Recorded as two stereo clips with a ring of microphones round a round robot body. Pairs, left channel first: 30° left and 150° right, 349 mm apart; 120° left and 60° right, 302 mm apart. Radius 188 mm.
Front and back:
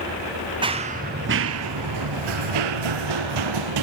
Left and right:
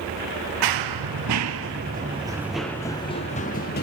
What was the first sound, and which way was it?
Running footsteps, 75° right.